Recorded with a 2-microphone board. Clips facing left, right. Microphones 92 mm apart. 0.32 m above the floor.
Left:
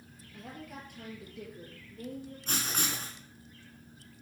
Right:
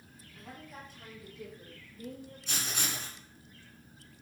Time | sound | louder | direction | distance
0.3 | a woman speaking | left 3 dB | 65° left (ahead or behind) | 5 m
2.5 | writing | left 2 dB | 45° left (ahead or behind) | 3.5 m